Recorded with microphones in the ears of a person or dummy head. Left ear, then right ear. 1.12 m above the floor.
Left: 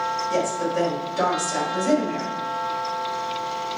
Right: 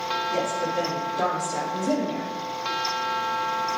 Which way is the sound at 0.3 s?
60° left (ahead or behind).